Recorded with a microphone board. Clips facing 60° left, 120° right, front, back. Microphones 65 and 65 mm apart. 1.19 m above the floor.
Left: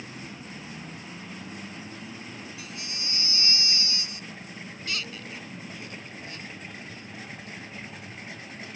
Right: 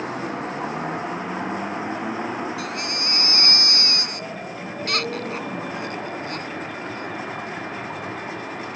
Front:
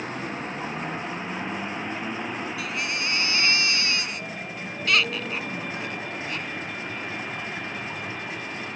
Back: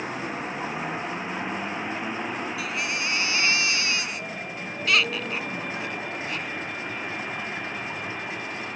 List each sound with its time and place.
0.0 s a vehicle: 95° right
2.6 s a baby crying: 90° right